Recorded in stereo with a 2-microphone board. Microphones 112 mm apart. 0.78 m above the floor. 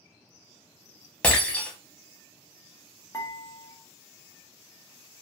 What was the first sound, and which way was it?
Breaking glass, 10° left (ahead or behind).